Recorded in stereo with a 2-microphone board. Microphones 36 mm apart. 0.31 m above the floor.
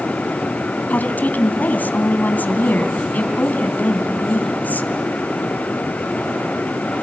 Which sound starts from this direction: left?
A woman speaking, at 0.9 s.